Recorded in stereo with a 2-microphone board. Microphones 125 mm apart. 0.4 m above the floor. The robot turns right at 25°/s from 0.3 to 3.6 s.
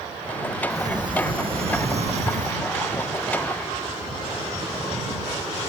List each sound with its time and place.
0.7 s a sliding door: 150° right; by 2.6 s 105° right